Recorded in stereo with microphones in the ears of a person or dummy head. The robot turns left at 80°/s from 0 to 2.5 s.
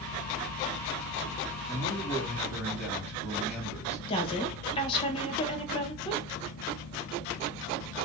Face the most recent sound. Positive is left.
turn(degrees=25)  # may be behind; listen again after turning